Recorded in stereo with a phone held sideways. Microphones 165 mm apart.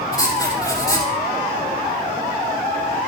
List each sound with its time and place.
0.1 s writing: 25° left (ahead or behind), 4 m